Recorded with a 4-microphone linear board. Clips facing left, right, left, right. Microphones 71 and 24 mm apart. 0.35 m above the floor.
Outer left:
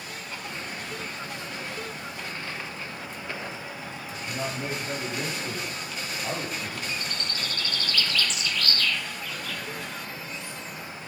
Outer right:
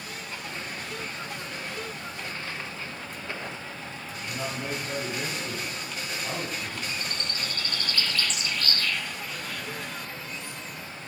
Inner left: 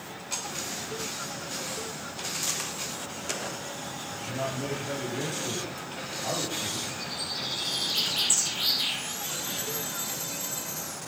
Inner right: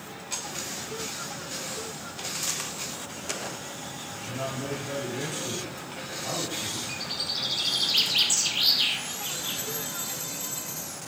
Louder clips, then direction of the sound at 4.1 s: Outer left 1 dB, inner left 1 dB; 20° left (ahead or behind).